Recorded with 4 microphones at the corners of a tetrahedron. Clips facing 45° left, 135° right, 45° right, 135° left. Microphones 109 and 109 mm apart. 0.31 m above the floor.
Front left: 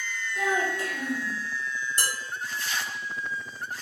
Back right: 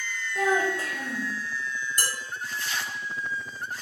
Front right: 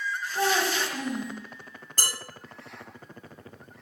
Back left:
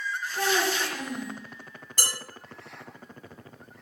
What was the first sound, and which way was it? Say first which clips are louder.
A child speaking: back right 3 dB, front right 1 dB; 95° right.